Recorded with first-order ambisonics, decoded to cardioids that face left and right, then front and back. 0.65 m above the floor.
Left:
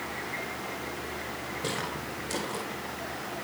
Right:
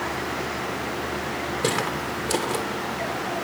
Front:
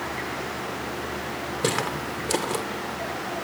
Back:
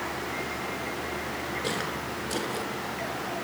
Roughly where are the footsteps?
Ahead right.